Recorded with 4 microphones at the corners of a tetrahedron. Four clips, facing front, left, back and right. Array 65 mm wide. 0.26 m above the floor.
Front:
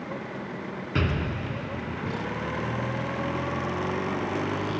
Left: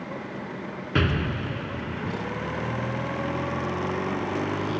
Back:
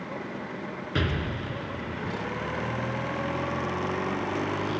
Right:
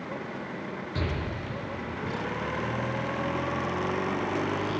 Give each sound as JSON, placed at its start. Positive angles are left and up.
{"t": 0.9, "sound": "an explosion", "azimuth_deg": 85, "distance_m": 3.0}